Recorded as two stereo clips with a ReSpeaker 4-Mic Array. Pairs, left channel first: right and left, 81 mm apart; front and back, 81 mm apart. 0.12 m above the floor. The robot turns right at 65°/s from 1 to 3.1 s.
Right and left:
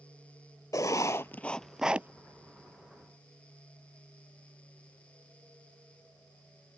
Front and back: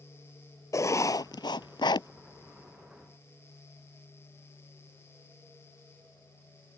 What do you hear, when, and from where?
0.7 s writing: 45° right; by 2.1 s 25° left